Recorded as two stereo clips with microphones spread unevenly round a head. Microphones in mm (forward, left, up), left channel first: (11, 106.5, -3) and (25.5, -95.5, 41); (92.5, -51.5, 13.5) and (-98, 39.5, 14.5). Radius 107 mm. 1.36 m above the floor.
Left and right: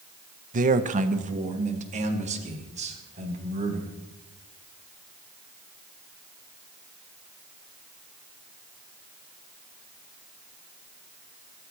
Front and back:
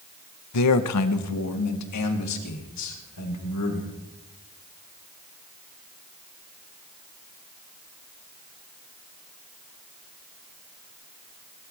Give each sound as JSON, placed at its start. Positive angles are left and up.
{"t": 0.5, "sound": "a man speaking", "azimuth_deg": -35, "distance_m": 0.9}